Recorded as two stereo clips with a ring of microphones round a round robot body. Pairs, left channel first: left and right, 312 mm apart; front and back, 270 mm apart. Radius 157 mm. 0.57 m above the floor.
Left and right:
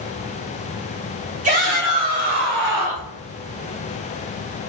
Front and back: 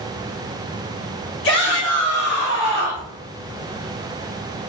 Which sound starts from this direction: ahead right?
A shout, at 1.4 s.